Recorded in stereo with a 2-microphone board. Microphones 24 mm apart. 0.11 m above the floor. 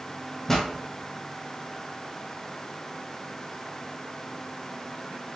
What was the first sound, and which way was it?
A pop, 15° left (ahead or behind).